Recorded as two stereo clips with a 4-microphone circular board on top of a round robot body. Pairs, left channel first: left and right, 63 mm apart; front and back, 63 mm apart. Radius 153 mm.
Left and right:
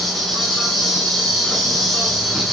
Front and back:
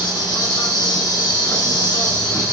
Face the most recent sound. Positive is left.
turn(degrees=0)